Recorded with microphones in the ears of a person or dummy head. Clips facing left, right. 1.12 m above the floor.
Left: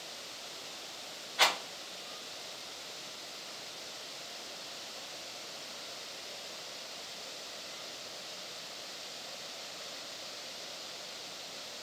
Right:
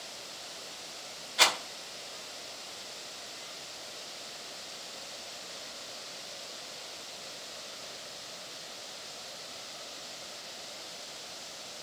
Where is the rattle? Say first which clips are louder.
Right 1 dB; 35° right (ahead or behind), 1.4 m.